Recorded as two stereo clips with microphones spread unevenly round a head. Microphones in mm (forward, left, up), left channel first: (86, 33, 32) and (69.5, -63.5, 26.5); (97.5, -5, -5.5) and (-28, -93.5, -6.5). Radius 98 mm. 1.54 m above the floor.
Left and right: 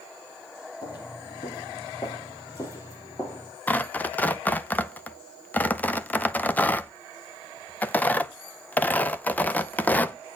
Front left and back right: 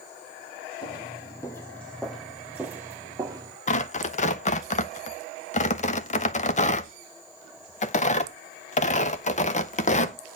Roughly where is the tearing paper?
Ahead.